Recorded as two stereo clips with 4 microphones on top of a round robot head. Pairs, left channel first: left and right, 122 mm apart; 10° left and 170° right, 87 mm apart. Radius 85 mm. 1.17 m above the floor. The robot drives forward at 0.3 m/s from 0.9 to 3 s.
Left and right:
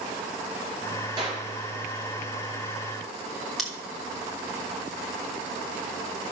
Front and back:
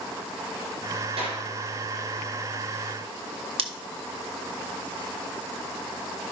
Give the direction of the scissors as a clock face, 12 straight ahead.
6 o'clock.